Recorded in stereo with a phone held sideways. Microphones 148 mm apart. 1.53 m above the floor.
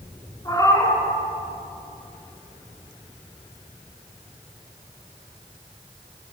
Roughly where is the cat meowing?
Left.